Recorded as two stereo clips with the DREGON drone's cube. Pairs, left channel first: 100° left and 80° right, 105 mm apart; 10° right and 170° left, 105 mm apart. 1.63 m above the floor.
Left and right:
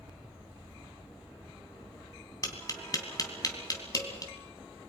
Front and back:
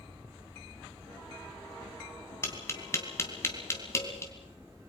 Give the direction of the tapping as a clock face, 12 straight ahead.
10 o'clock.